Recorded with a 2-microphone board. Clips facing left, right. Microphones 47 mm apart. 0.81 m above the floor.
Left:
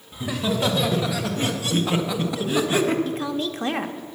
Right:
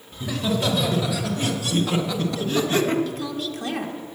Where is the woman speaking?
35° left (ahead or behind), 0.9 m.